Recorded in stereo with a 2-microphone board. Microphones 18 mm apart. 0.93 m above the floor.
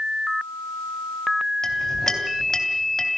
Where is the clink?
30° left (ahead or behind), 3.5 m.